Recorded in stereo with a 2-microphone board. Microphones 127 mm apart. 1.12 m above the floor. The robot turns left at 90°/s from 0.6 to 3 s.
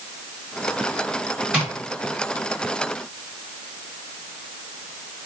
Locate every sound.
1.5 s tapping: 10° right (ahead or behind), 1.5 m; by 1.7 s 20° right (ahead or behind), 1.5 m